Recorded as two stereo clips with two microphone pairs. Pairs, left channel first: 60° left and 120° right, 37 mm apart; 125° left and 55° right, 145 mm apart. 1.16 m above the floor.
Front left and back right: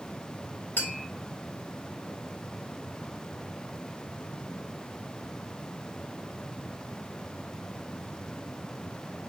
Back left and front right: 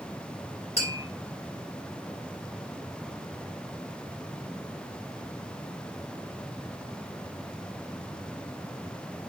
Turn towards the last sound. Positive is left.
turn(degrees=75)